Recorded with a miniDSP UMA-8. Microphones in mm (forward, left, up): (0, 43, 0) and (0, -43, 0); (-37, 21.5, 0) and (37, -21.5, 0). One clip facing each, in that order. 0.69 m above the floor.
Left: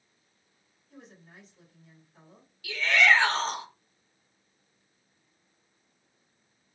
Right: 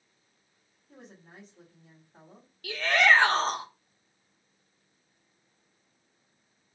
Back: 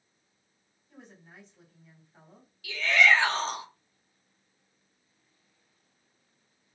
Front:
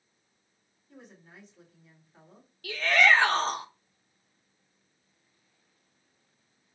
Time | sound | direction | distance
0.9 | a woman speaking | 110° right | 2 m
2.6 | a shout | 60° right | 0.9 m